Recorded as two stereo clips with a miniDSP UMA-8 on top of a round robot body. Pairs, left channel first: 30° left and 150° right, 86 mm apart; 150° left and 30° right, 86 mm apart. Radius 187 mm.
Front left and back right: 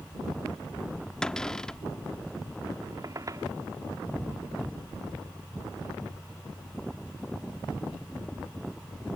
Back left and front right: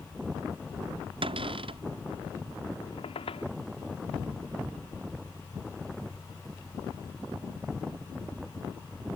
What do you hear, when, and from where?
1.2 s a cupboard door: 50° right
2.8 s a squeak: 160° left